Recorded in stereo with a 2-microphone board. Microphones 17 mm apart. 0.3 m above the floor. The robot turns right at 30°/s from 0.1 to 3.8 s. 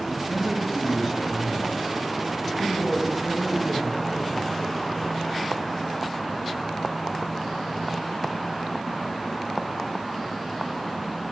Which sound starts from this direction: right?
A man speaking, at 0.2 s.